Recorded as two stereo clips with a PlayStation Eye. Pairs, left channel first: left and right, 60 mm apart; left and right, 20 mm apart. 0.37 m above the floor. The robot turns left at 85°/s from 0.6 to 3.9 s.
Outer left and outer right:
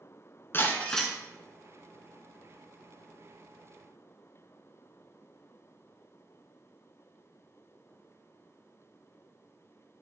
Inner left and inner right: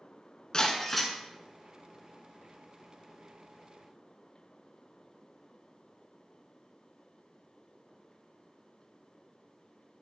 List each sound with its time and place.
0.5 s breaking glass: 40° left, 1.4 m; by 1.1 s 10° right, 1.4 m